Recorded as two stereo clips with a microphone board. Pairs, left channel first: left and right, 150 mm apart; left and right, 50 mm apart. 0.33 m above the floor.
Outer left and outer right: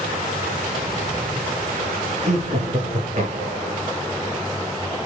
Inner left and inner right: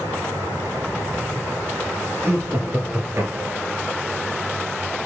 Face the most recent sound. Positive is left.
turn(degrees=-55)  # may be behind; listen again after turning